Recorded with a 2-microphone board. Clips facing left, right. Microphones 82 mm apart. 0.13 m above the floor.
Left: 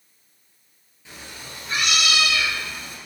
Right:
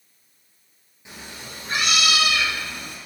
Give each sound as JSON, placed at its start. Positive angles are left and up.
{"t": 1.1, "sound": "a cat meowing", "side_deg": -15, "distance_m": 1.3}